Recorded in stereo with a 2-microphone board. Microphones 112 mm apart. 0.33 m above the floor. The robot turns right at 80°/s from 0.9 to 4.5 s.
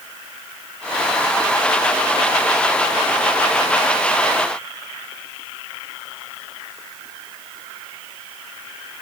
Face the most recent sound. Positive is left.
No sound to turn to.